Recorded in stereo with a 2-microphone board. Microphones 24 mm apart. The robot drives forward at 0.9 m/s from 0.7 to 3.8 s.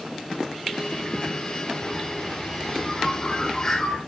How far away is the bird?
About 6 m.